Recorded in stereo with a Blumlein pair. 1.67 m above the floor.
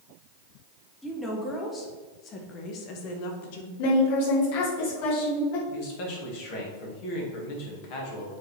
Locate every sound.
1.0 s a woman speaking: 10° left, 2 m; by 3.7 s 55° left, 1.4 m
3.8 s a woman speaking: 45° left, 3 m
5.7 s a man speaking: 45° left, 2.5 m